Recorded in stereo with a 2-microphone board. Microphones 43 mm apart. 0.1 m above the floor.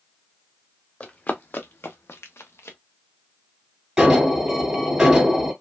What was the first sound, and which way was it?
Running footsteps, 35° left (ahead or behind).